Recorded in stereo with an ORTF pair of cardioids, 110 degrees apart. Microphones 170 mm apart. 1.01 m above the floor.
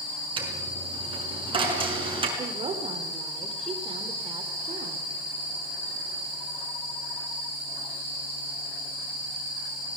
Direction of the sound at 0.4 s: 30° right.